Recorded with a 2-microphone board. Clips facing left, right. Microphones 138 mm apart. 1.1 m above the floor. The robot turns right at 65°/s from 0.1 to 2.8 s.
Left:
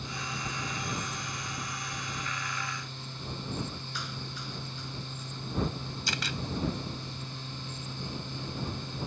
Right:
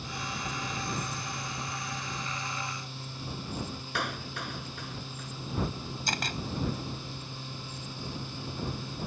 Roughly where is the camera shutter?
Right.